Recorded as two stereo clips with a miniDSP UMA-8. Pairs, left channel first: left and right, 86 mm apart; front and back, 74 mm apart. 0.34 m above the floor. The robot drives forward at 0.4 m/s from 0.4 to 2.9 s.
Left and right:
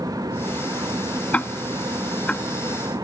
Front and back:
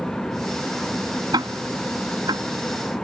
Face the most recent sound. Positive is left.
turn(degrees=170)